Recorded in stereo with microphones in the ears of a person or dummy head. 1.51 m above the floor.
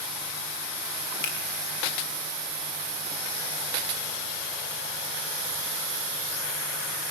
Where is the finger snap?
65° left (ahead or behind), 1.8 m.